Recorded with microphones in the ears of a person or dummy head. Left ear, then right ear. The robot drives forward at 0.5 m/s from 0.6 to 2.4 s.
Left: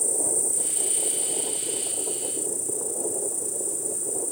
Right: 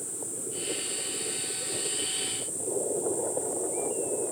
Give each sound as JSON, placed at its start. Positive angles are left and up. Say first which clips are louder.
{"t": 0.0, "sound": "an insect", "louder": "left 10 dB", "side_deg": 50, "distance_m": 1.0}